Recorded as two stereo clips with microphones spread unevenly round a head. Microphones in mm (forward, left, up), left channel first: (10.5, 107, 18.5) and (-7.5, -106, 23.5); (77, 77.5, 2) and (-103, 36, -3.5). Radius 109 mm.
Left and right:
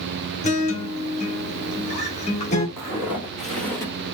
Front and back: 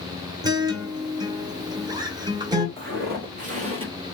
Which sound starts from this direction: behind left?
A guitar, at 0.4 s.